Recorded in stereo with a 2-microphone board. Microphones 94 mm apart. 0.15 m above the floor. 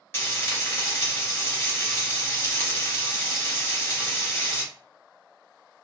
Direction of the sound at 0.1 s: 25° left (ahead or behind).